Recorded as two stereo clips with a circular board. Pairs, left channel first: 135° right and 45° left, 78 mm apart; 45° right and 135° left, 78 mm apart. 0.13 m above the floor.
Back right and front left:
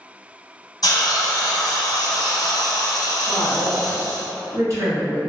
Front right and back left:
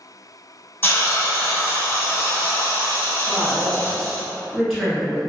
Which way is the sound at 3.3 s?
45° left.